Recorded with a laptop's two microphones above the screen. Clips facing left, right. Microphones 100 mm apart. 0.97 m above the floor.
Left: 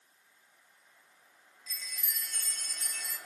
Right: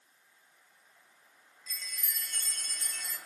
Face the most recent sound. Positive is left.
turn(degrees=5)  # may be behind; listen again after turning